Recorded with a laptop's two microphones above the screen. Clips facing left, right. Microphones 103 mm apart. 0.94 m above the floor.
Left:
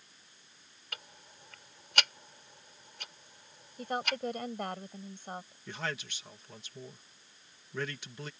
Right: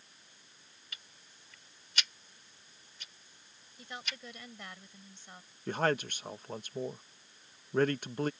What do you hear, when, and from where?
0.9 s ticking: 65° left (ahead or behind)
3.8 s a woman speaking: 55° left (ahead or behind)
5.7 s a man speaking: 50° right (ahead or behind)